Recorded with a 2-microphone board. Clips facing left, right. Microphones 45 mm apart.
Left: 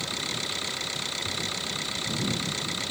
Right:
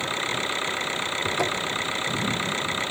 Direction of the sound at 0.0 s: 30° right (ahead or behind).